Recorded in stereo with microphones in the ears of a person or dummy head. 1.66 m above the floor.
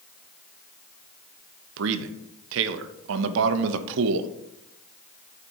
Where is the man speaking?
70° right (ahead or behind), 0.7 m.